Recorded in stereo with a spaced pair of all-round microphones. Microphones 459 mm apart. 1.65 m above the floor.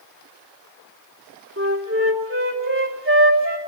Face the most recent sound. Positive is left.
turn(degrees=-30)  # may be behind; listen again after turning